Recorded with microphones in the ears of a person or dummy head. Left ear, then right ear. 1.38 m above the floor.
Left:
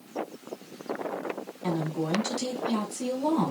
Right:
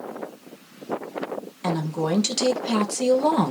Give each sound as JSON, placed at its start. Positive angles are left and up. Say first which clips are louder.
{"t": 1.6, "sound": "a woman speaking", "louder": "right 5 dB", "side_deg": -60, "distance_m": 1.3}